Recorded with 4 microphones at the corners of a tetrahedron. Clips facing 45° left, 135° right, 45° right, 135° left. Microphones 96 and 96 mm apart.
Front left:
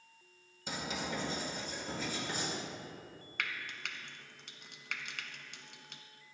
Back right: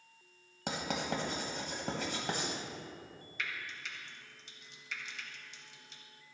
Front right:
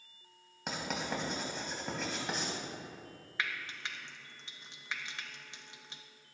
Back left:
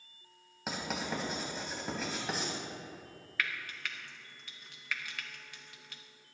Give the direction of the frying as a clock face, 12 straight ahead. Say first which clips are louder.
Front left 1 dB, back left 1 dB; 11 o'clock.